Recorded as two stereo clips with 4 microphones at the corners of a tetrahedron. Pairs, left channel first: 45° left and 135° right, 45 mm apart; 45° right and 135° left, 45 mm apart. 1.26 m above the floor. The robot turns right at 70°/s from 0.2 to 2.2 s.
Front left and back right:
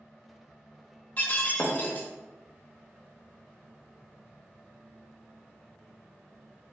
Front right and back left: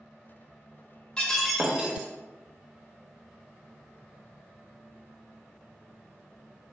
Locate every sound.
1.2 s breaking glass: 20° left, 0.7 m; by 2.1 s 80° left, 0.7 m